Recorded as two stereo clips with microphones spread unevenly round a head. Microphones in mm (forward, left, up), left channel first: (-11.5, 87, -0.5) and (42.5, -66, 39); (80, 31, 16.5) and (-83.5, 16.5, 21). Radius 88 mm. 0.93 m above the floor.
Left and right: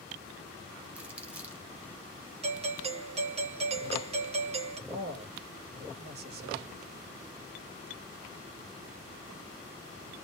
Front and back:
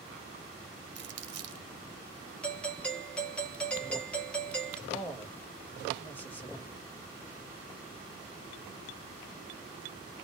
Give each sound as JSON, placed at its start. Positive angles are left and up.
{"t": 0.9, "sound": "crumpling", "azimuth_deg": -160, "distance_m": 0.8}
{"t": 2.4, "sound": "a doorbell", "azimuth_deg": -65, "distance_m": 0.6}
{"t": 4.9, "sound": "a man speaking", "azimuth_deg": -70, "distance_m": 0.8}